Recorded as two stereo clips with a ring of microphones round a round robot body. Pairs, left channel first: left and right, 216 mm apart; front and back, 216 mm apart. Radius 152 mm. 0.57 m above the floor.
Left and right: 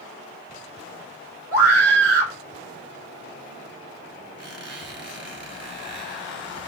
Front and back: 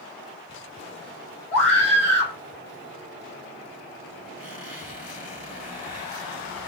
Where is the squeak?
60° right, 3.5 m.